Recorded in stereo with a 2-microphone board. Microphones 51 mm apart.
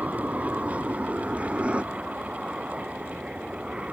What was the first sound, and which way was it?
An aircraft, 30° right (ahead or behind).